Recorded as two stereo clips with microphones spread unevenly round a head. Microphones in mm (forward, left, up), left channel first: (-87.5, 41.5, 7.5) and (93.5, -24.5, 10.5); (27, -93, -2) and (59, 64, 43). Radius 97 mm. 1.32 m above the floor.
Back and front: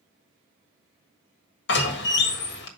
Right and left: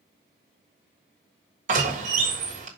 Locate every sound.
1.7 s a door slam: 130° left, 1.4 m